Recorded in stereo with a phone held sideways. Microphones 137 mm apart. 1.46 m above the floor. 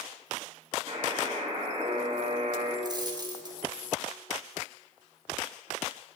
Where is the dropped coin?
30° right (ahead or behind), 1.3 m.